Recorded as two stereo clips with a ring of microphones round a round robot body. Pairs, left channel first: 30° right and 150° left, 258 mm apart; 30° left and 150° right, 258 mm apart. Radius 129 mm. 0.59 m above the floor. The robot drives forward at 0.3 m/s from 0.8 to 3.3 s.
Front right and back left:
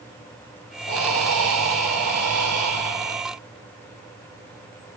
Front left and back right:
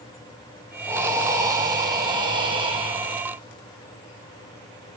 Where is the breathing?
130° left, 2.5 m; by 3.2 s 145° left, 3 m.